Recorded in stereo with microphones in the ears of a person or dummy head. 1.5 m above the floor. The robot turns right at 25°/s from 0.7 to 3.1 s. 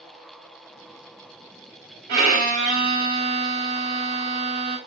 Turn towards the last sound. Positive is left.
turn(degrees=-50)  # may be behind; listen again after turning